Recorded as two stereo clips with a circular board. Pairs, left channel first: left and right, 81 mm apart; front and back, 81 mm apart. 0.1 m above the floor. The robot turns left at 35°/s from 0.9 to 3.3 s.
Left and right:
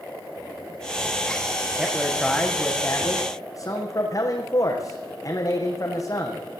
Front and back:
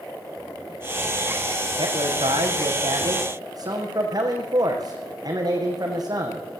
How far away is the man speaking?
About 6 m.